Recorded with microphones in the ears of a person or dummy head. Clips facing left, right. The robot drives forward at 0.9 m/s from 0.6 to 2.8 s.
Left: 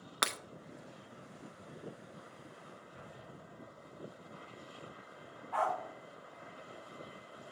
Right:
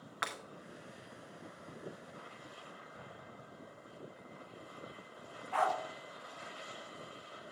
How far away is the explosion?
About 3 m.